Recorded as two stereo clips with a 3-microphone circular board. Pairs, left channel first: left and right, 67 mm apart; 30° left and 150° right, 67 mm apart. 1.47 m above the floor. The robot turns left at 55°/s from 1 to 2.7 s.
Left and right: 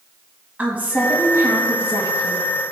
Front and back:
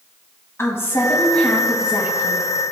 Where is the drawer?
I don't hear a drawer.